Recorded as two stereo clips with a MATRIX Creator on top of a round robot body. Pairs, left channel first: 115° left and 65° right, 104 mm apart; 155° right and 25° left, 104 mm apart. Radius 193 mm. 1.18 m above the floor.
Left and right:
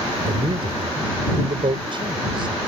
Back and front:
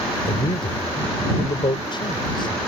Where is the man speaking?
110° right.